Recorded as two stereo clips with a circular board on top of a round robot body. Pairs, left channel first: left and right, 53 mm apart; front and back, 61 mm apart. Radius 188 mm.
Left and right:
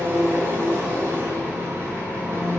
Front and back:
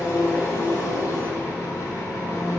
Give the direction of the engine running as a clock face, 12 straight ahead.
1 o'clock.